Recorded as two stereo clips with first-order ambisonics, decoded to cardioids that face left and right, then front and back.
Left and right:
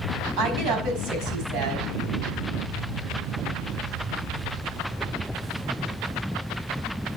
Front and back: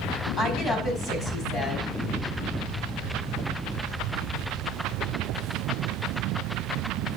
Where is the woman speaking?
60° right, 4.5 m.